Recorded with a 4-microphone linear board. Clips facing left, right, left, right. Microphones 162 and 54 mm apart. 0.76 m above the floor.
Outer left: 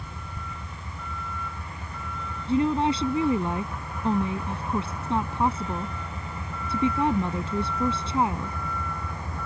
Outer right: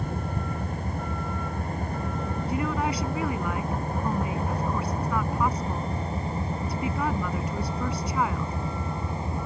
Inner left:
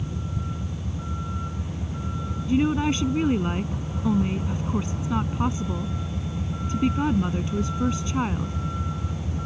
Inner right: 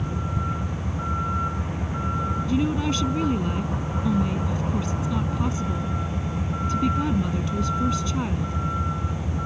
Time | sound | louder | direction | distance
0.0 | a vehicle | outer right 10 dB, inner right 4 dB | 50° right (ahead or behind) | ?
2.5 | a woman speaking | outer left 7 dB, inner left 4 dB | 30° left (ahead or behind) | ?